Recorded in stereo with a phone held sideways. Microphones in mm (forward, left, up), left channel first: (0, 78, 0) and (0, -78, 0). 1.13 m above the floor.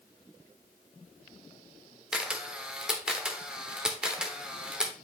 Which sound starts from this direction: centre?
A camera shutter, at 2.1 s.